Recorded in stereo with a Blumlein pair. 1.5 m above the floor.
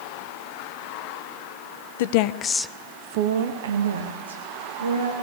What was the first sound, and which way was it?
A woman speaking, 55° left.